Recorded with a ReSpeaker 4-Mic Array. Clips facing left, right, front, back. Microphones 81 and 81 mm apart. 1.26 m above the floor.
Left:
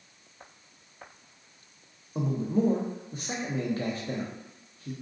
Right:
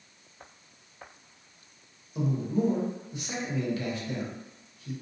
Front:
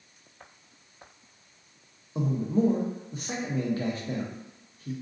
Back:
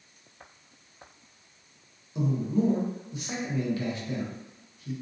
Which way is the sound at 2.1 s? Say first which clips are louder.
Left 1 dB, front 1 dB; 45° left.